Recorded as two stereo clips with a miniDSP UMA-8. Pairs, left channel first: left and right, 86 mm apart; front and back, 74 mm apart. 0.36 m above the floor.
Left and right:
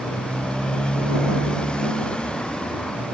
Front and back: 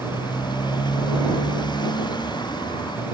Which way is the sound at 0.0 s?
10° left.